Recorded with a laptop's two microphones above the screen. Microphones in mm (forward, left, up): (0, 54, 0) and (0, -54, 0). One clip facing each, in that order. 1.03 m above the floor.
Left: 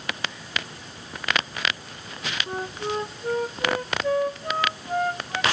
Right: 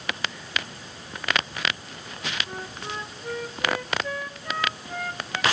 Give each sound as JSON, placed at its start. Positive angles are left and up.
{"t": 2.5, "sound": "a flute", "side_deg": 35, "distance_m": 0.5}